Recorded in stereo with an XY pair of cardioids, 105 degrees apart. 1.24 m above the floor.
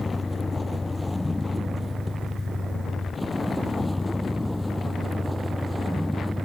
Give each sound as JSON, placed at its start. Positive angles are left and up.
{"t": 0.0, "sound": "a vehicle", "azimuth_deg": 15}